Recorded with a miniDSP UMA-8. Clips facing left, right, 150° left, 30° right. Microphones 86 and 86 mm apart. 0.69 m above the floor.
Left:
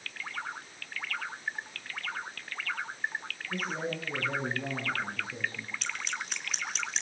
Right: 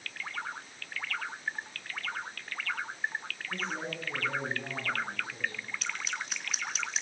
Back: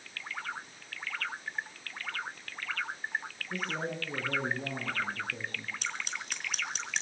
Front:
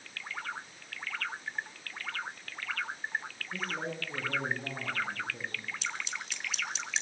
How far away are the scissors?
About 4 m.